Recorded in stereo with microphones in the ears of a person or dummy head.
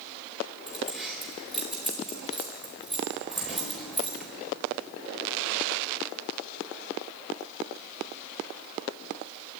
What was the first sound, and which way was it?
Keys jangling, centre (ahead or behind).